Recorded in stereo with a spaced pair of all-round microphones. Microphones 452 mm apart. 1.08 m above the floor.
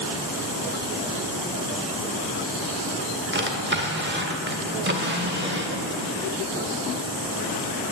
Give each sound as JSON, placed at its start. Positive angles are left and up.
{"t": 3.3, "sound": "a drawer", "side_deg": -25, "distance_m": 1.2}